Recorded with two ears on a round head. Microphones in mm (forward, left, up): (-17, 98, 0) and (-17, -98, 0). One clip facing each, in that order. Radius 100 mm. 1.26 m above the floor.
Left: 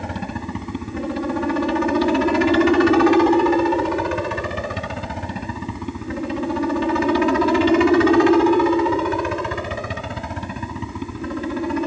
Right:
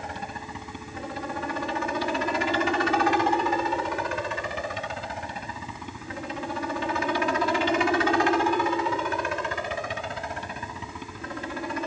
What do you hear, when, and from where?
0.0 s a helicopter: 55° left (ahead or behind); by 11.9 s 65° left (ahead or behind)